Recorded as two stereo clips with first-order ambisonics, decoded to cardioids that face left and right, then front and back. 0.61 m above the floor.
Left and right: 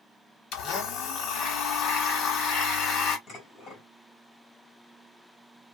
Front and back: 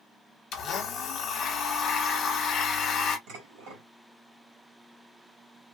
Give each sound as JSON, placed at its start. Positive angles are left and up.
{"t": 0.5, "sound": "a blender", "azimuth_deg": 50, "distance_m": 1.2}
{"t": 3.3, "sound": "dishes clattering", "azimuth_deg": 150, "distance_m": 2.5}